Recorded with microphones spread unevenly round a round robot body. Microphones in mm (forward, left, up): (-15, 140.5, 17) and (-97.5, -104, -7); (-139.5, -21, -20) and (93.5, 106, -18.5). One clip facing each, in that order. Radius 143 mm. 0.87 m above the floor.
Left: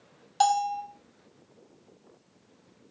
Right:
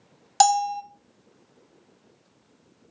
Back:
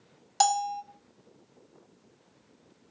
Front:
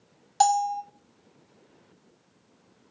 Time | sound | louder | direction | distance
0.4 | a bell | right 4 dB, front 4 dB | 70° right | 0.7 m